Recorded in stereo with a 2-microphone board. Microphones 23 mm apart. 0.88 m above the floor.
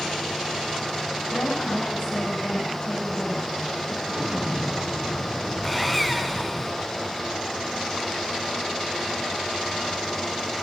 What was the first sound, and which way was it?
A woman speaking, 75° left (ahead or behind).